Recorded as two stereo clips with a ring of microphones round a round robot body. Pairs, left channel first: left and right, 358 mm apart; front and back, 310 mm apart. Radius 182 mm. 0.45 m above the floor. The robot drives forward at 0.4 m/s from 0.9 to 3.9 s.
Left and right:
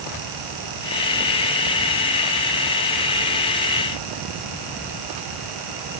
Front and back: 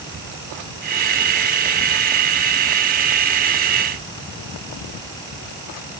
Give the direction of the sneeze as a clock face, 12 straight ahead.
I don't hear a sneeze.